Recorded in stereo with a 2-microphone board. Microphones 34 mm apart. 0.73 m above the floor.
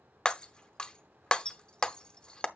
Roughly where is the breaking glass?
Left.